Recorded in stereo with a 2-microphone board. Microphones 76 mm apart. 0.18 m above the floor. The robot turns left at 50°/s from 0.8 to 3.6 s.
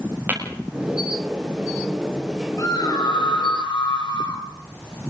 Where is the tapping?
25° right (ahead or behind), 7.5 m.